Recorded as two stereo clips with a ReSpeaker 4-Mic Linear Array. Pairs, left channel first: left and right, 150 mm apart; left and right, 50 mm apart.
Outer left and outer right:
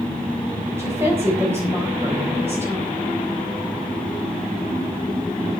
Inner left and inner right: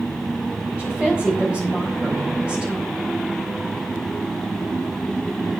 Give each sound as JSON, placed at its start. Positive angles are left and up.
{"t": 0.8, "sound": "a woman speaking", "side_deg": -15, "distance_m": 3.5}